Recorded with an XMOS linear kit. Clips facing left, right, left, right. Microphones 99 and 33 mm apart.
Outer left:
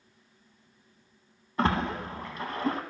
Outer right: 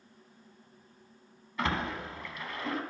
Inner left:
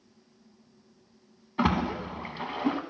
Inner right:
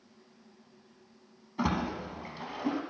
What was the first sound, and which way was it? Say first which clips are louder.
A splash: outer left 5 dB, inner left 5 dB; 35° left (ahead or behind).